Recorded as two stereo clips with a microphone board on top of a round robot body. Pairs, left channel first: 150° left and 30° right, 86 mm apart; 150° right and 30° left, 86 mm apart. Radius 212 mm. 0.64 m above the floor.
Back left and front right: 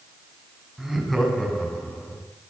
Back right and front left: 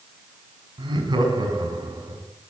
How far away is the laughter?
About 6 m.